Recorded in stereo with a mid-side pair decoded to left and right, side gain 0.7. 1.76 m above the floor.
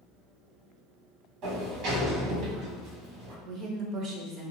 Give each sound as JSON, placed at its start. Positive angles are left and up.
{"t": 1.4, "sound": "a sliding door", "azimuth_deg": -60, "distance_m": 1.6}
{"t": 3.5, "sound": "a woman speaking", "azimuth_deg": -50, "distance_m": 1.1}